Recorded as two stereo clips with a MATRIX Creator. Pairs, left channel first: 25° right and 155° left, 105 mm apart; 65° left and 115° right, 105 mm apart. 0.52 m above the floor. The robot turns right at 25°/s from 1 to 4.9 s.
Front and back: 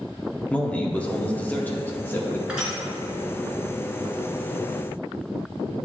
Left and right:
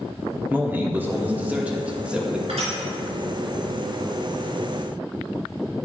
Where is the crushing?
125° right, 2 m; by 2.8 s 115° right, 2 m.